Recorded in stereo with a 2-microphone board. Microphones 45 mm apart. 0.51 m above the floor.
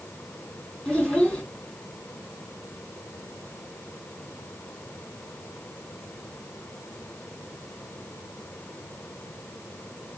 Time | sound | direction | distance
0.8 | a child speaking | 20° left (ahead or behind) | 2.5 m